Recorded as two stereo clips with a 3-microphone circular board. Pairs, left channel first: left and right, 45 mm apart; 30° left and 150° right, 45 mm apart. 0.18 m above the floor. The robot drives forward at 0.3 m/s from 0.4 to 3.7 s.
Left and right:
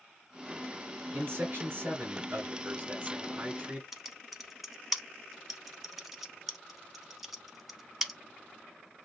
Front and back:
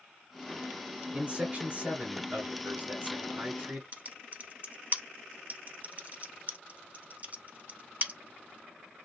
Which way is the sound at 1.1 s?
105° right.